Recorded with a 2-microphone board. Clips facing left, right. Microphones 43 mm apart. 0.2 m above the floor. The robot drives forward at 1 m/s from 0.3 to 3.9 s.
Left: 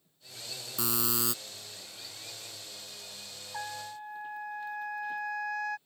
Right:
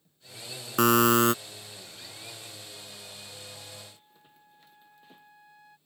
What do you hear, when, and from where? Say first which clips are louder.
0.8 s a buzzer: right 14 dB; 65° right (ahead or behind); by 1.3 s 50° right (ahead or behind)
3.5 s a trumpet: left 9 dB; 85° left